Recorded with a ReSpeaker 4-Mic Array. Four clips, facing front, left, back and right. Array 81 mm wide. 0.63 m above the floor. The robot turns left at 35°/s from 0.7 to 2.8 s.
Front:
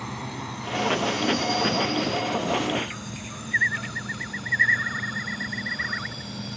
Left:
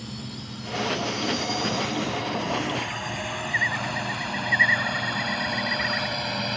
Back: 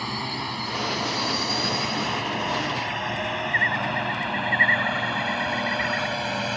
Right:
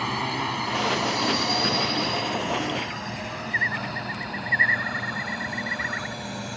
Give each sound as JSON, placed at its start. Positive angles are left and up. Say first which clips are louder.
{"t": 0.0, "sound": "a drone", "louder": "right 11 dB, back 4 dB", "azimuth_deg": -105}